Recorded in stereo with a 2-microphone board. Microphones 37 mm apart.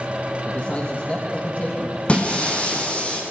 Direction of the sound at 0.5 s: 35° left (ahead or behind).